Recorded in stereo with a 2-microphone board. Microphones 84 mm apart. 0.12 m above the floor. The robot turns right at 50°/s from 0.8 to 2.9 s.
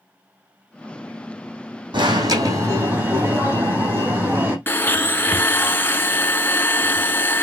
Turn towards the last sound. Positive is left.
turn(degrees=25)  # may be behind; listen again after turning